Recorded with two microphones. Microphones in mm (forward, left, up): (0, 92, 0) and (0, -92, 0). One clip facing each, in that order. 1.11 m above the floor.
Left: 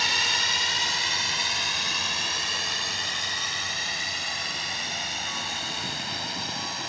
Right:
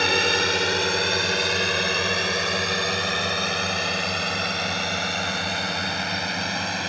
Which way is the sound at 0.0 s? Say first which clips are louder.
Right 12 dB; 65° right (ahead or behind).